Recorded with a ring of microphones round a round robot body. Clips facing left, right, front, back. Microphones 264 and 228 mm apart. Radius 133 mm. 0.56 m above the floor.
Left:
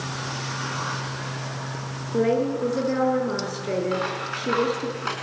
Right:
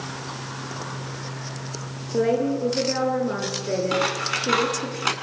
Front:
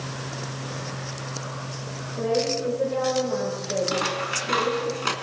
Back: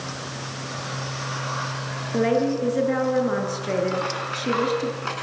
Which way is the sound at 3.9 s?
55° right.